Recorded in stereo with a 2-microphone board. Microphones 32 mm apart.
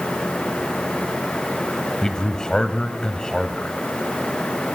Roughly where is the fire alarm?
I don't hear a fire alarm.